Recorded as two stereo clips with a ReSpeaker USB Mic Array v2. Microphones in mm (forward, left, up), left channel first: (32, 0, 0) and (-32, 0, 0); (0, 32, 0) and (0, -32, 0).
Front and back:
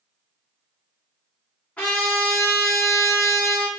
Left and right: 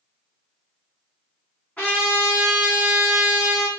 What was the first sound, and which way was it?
A trumpet, 35° left.